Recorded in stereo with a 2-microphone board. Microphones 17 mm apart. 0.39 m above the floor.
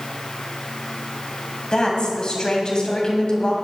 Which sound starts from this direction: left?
A woman speaking, at 1.7 s.